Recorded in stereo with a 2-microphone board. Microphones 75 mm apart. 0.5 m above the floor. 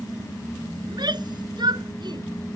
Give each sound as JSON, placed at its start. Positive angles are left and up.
{"t": 0.8, "sound": "a shout", "side_deg": -70}